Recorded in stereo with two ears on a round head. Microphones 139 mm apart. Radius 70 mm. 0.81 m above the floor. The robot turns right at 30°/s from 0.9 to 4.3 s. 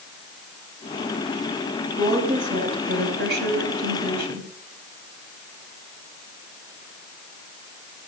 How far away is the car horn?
I don't hear a car horn.